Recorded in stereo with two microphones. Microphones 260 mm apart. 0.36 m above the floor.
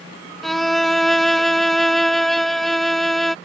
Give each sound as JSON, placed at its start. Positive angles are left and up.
{"t": 0.4, "sound": "a violin", "side_deg": 0}